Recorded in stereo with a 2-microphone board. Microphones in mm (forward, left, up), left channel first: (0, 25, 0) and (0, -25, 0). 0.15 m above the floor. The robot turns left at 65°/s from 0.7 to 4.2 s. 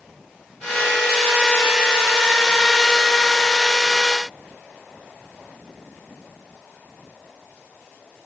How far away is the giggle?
I don't hear a giggle.